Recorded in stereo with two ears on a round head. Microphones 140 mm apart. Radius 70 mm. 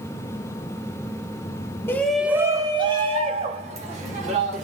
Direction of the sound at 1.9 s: 15° left (ahead or behind).